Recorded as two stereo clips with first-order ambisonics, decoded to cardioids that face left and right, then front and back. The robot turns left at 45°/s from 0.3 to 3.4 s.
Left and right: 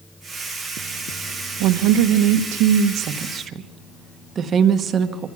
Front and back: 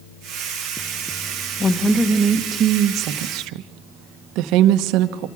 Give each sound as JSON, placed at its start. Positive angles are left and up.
{"t": 1.6, "sound": "a woman speaking", "azimuth_deg": -70, "distance_m": 1.2}